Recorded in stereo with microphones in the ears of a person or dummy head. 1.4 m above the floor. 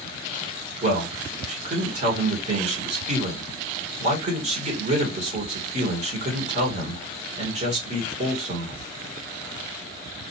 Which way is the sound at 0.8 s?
40° right (ahead or behind).